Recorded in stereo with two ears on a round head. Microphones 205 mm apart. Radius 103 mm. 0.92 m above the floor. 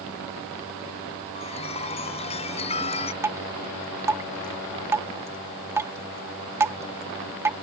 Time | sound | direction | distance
1.4 | a chime | 30° left (ahead or behind) | ?
3.2 | dripping | 10° right (ahead or behind) | ?